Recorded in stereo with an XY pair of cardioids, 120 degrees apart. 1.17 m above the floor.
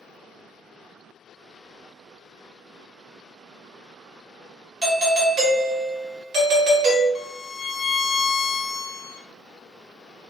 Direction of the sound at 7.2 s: 55° left.